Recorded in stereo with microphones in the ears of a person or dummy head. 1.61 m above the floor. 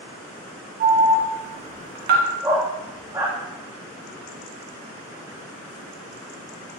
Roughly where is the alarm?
Right.